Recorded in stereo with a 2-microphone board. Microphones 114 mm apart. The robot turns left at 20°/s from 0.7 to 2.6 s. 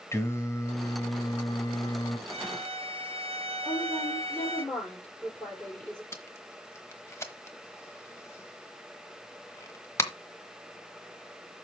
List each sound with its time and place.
0.1 s singing: 25° left (ahead or behind), 1.8 m; by 2.2 s 40° left (ahead or behind), 1.8 m
2.3 s a violin: 55° right (ahead or behind), 0.8 m; by 4.7 s 60° right (ahead or behind), 0.8 m
3.6 s a woman speaking: 10° left (ahead or behind), 6 m
6.1 s tape being pulled: 25° left (ahead or behind), 1.1 m